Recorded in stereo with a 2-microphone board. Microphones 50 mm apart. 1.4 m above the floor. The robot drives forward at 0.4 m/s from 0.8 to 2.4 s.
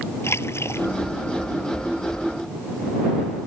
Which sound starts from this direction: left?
A splash, at 0.2 s.